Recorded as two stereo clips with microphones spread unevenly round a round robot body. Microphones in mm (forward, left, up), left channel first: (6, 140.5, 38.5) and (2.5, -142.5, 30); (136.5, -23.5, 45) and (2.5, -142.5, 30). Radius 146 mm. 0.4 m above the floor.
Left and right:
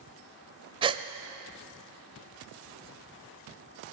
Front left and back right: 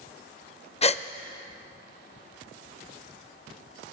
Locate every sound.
0.8 s a gasp: 20° right, 0.6 m